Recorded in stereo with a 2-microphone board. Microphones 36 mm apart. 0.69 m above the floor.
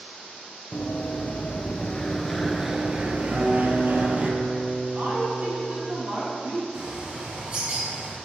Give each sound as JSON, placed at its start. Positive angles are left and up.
{"t": 0.7, "sound": "running footsteps", "side_deg": 55, "distance_m": 1.2}
{"t": 3.3, "sound": "a guitar", "side_deg": -20, "distance_m": 1.9}
{"t": 4.9, "sound": "a woman speaking", "side_deg": -50, "distance_m": 1.7}
{"t": 6.7, "sound": "a bird", "side_deg": -40, "distance_m": 3.0}